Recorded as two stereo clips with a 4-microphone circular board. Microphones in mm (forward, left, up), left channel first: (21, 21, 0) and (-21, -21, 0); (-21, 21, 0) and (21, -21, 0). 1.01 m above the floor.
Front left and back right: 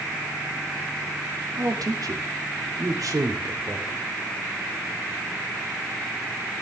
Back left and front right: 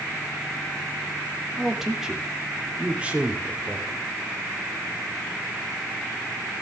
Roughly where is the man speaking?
Behind right.